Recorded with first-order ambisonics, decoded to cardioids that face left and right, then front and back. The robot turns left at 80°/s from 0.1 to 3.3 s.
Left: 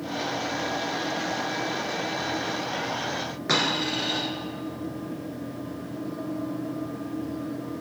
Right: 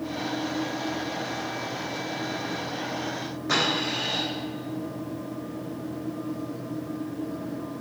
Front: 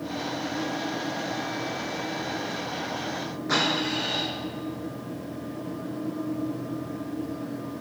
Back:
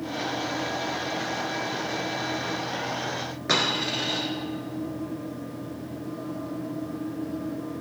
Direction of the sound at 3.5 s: 135° left.